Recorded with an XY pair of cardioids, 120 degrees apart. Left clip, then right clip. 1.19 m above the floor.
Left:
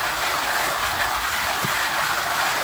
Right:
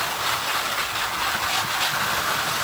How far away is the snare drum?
No snare drum in this recording.